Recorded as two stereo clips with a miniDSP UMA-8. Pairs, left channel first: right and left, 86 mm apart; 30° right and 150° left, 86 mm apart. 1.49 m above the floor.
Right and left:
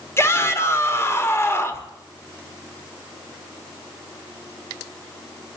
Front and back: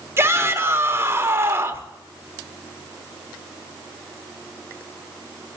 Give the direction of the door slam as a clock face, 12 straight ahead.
No door slam in this recording.